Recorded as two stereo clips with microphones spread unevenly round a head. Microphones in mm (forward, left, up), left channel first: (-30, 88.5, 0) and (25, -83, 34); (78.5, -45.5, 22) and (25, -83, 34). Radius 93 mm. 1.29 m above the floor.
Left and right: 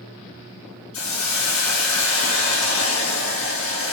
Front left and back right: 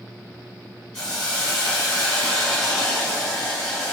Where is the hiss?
120° left, 5 m.